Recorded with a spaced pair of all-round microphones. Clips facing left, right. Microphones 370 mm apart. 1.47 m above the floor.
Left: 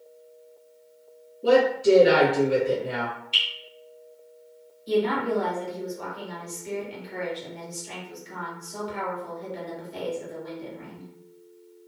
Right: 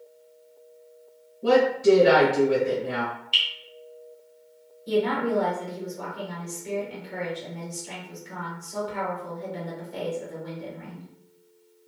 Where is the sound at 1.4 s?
70° right (ahead or behind), 1.5 m.